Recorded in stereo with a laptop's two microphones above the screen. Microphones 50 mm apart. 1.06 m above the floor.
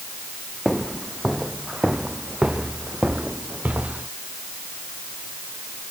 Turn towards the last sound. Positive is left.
turn(degrees=-30)  # may be behind; listen again after turning